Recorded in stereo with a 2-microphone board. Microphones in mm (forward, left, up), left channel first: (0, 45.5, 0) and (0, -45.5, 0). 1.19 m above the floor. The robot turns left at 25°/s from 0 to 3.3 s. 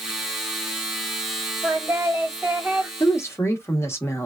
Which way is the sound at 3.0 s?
35° left (ahead or behind).